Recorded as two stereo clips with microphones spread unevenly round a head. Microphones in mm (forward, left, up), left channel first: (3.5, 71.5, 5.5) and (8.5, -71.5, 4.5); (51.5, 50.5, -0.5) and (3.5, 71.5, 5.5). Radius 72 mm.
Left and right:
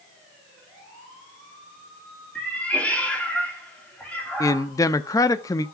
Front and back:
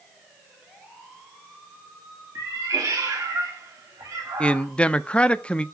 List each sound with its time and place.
2.4 s a cat meowing: 175° left, 1.8 m
4.4 s a man speaking: 30° left, 0.5 m